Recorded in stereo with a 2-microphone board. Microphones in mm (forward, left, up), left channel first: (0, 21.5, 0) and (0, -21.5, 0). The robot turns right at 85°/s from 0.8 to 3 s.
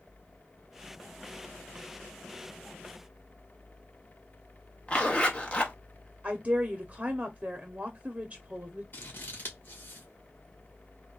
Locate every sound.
4.9 s a zipper: 25° left (ahead or behind), 1.0 m
6.2 s a woman speaking: 30° right (ahead or behind), 0.7 m
8.9 s scissors: 55° left (ahead or behind), 1.5 m